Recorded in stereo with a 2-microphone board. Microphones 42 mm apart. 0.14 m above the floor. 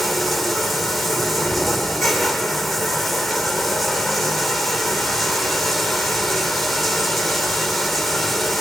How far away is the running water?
About 2 m.